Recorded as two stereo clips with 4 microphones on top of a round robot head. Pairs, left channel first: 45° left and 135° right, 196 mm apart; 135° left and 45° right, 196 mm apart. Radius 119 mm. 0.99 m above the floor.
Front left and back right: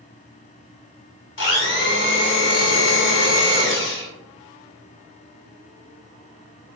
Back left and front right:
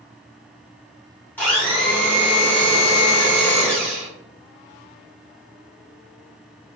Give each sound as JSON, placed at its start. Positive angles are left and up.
{"t": 1.4, "sound": "a blender", "azimuth_deg": 55, "distance_m": 1.4}